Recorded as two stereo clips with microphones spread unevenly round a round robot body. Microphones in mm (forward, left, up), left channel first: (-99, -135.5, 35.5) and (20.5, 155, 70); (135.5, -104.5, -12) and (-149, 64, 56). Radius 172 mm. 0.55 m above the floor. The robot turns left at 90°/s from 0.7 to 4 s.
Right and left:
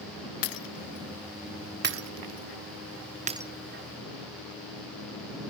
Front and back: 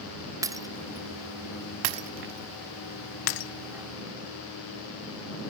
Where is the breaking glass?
130° right; by 3.5 s 25° right.